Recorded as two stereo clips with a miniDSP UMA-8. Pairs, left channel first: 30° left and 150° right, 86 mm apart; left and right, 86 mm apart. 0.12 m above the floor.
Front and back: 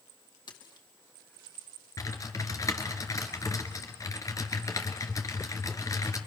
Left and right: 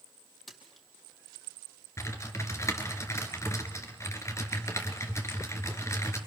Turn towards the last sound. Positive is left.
turn(degrees=55)